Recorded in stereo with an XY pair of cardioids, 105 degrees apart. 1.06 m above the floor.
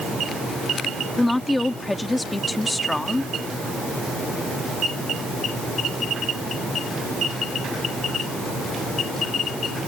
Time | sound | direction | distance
1.2 | a woman speaking | 15° left | ?